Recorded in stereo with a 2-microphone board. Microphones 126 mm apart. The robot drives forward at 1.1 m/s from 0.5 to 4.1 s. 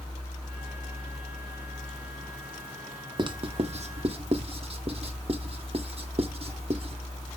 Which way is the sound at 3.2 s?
35° right (ahead or behind).